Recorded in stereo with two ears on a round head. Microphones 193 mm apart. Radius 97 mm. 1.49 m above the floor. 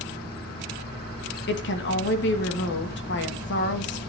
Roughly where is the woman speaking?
Left.